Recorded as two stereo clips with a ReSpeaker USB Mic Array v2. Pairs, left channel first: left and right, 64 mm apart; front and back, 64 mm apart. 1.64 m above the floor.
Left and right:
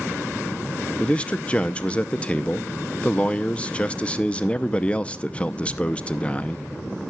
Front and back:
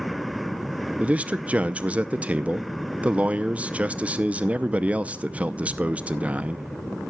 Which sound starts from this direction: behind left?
A man speaking, at 1.0 s.